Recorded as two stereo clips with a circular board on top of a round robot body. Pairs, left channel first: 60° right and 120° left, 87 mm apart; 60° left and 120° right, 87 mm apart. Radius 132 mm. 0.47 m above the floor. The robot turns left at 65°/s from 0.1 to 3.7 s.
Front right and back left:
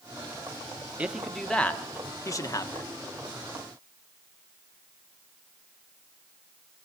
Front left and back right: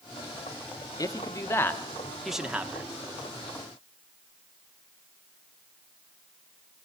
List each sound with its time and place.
1.0 s a man speaking: 50° left, 1.6 m; by 2.9 s 75° right, 1.6 m